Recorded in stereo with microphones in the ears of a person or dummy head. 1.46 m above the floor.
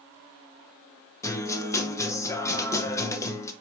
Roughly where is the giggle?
I don't hear a giggle.